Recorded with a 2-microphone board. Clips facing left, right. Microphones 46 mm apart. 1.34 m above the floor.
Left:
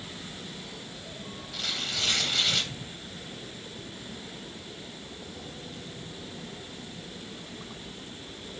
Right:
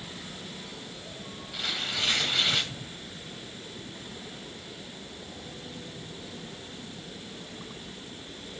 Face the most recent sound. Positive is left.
turn(degrees=-10)  # may be behind; listen again after turning